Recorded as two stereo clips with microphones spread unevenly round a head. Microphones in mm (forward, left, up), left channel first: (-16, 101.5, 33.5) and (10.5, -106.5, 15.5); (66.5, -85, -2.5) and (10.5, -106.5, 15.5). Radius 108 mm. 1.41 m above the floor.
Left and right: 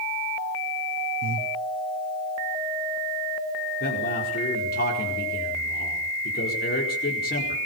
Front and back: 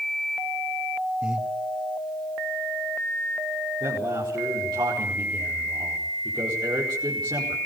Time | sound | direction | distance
1.2 | breathing | 85° right | 1.8 m
3.8 | a man speaking | 145° left | 5 m